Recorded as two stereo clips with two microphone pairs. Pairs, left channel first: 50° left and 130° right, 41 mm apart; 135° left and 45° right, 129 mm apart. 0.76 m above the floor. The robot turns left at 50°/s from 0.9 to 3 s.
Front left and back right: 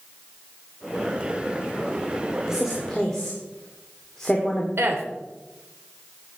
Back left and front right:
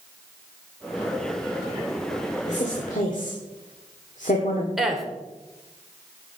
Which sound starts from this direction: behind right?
A woman speaking, at 4.8 s.